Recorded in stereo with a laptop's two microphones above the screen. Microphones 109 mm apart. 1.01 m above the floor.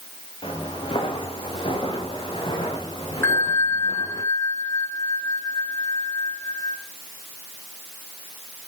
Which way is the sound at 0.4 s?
55° left (ahead or behind).